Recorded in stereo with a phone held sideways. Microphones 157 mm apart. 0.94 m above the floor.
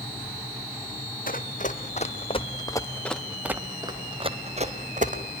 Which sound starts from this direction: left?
Running footsteps, at 1.3 s.